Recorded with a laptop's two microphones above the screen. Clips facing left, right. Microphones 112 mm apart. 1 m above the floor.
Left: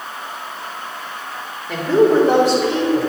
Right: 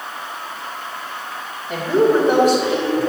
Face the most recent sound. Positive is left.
turn(degrees=85)